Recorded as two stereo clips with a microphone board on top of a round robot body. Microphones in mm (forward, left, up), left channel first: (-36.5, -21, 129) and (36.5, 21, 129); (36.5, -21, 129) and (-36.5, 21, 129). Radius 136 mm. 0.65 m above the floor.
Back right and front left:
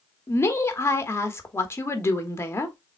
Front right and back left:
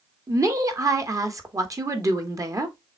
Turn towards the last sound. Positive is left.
turn(degrees=165)